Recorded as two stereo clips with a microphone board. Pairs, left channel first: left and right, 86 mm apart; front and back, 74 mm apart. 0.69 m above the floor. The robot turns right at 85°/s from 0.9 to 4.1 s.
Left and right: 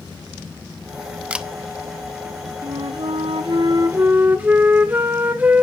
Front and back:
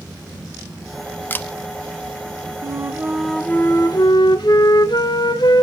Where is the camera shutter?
30° right, 0.6 m; by 1.5 s 15° right, 0.6 m.